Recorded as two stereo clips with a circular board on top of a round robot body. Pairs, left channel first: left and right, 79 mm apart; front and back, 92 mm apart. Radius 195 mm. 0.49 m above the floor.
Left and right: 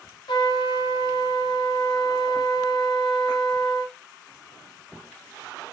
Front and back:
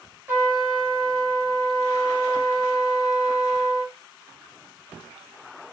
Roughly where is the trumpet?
Left.